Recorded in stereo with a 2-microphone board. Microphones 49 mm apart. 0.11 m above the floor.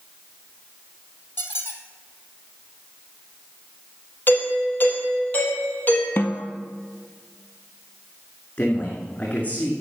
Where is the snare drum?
45° left (ahead or behind), 1.2 m.